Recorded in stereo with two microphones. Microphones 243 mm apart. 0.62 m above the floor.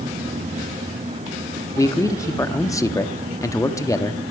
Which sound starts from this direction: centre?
A man speaking, at 1.8 s.